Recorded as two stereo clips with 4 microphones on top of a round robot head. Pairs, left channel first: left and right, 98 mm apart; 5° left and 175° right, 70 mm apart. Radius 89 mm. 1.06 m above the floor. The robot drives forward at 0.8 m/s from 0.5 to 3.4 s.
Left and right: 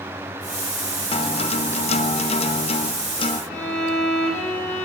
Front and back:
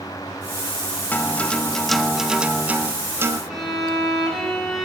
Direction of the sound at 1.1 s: 65° left.